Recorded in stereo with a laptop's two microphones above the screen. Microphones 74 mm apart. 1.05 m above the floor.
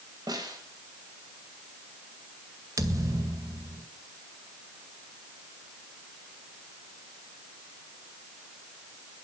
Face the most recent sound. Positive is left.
turn(degrees=-50)  # may be behind; listen again after turning